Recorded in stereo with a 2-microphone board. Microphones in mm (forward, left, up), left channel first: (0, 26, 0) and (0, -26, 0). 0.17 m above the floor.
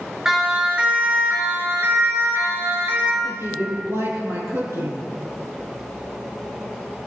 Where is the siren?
10° right (ahead or behind), 2.5 m; by 3.1 s 60° right (ahead or behind), 4 m.